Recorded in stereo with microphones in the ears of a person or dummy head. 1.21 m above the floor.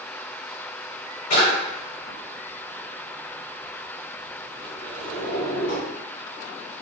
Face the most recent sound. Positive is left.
turn(degrees=50)  # may be behind; listen again after turning